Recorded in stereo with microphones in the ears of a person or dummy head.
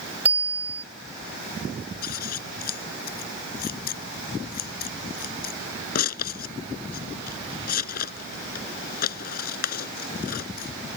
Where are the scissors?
55° left (ahead or behind).